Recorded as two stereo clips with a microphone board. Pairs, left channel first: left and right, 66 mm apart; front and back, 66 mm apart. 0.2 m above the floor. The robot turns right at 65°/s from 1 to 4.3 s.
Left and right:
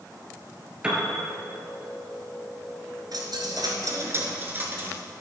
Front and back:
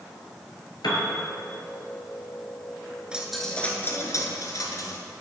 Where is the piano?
15° right, 1.7 m; by 1.1 s 10° right, 1.7 m.